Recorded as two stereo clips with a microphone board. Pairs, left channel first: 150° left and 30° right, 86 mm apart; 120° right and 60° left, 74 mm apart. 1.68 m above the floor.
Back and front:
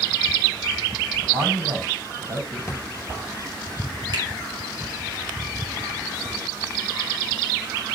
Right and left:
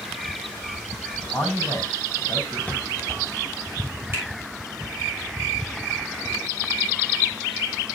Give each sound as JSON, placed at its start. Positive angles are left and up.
{"t": 1.2, "sound": "a man speaking", "azimuth_deg": -45, "distance_m": 5.5}
{"t": 2.7, "sound": "a drawer", "azimuth_deg": 180, "distance_m": 1.1}
{"t": 4.1, "sound": "a finger snap", "azimuth_deg": 5, "distance_m": 6.0}